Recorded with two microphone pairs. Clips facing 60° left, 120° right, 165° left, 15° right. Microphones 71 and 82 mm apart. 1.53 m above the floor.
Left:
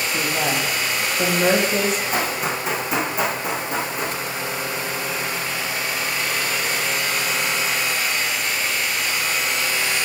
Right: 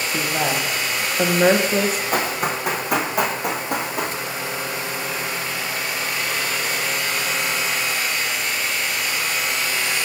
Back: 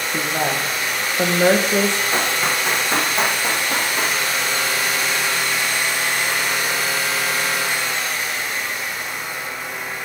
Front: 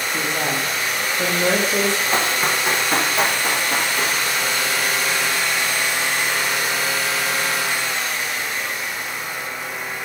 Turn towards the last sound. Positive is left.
turn(degrees=-120)